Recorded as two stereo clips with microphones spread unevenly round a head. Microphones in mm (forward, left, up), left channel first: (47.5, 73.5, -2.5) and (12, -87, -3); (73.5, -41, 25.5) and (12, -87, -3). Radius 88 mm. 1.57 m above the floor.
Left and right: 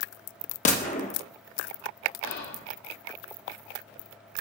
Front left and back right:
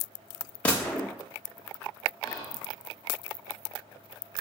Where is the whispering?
95° left, 1.9 m.